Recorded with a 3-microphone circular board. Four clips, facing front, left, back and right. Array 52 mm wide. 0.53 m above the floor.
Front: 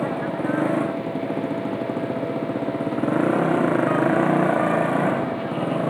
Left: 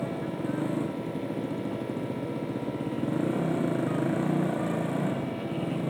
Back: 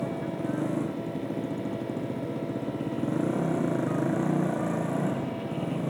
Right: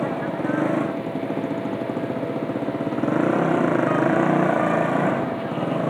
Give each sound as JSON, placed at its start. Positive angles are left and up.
{"t": 0.0, "sound": "a motorcycle", "azimuth_deg": -40}